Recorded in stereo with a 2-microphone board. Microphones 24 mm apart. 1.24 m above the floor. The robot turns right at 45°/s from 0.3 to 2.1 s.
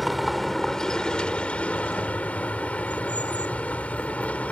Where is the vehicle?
5° left; by 4.5 s 85° left.